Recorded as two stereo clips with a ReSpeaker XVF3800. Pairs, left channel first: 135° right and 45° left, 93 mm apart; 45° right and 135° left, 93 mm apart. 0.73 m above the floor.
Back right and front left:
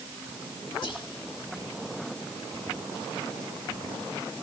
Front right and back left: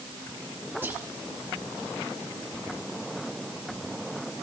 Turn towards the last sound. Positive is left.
turn(degrees=-160)